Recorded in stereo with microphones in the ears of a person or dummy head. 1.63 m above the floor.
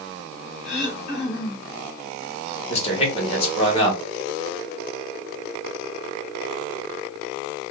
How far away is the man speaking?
About 2 m.